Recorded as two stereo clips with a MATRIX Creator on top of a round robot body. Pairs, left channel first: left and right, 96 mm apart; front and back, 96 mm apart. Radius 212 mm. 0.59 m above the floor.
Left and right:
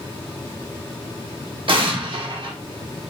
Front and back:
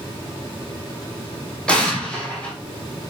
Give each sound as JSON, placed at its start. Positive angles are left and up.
{"t": 1.7, "sound": "an explosion", "azimuth_deg": -80, "distance_m": 1.4}